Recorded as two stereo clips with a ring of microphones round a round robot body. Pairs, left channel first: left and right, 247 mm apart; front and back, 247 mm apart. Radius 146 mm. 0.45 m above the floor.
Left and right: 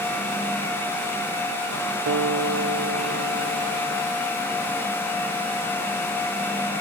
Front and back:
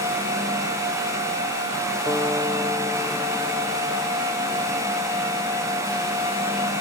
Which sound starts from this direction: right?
A guitar, at 2.1 s.